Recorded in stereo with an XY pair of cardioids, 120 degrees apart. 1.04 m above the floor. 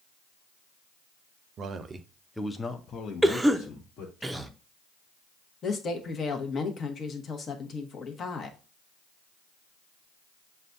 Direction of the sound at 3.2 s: 10° right.